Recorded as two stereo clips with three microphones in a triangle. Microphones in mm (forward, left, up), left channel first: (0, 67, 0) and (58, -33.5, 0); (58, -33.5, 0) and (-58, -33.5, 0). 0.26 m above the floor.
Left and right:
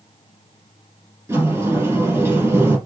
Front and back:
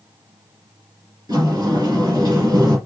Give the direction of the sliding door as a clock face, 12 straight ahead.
4 o'clock.